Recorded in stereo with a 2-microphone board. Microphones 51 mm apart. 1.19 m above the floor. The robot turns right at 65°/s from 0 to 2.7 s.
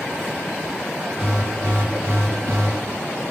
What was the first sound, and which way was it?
An alarm, 170° right.